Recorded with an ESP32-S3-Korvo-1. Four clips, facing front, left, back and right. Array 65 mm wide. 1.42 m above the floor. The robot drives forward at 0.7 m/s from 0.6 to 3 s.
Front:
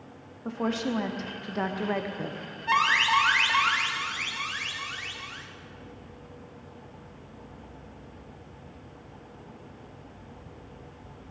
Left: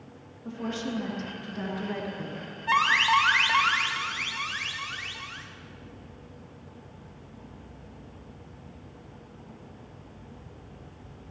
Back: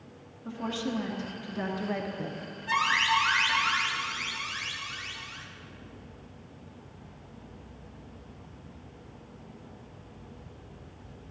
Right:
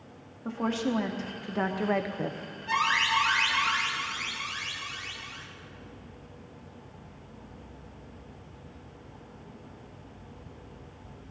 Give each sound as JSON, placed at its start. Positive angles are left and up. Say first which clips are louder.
{"t": 0.5, "sound": "a woman speaking", "louder": "right 4 dB, front 4 dB", "azimuth_deg": -35, "distance_m": 1.7}
{"t": 2.7, "sound": "an alarm", "louder": "left 4 dB, front 3 dB", "azimuth_deg": 55, "distance_m": 1.6}